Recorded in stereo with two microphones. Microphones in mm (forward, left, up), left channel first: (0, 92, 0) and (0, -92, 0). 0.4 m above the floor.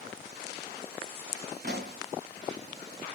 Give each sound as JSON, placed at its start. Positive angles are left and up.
{"t": 1.6, "sound": "a pop", "side_deg": -70, "distance_m": 2.5}